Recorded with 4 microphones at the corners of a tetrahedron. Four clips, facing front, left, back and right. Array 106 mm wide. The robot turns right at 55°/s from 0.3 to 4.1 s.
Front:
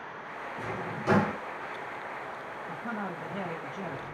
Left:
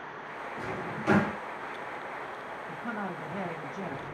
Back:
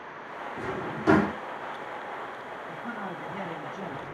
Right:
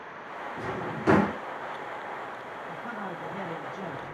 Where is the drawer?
150° right, 1.5 m; by 1.4 s 105° right, 1.5 m.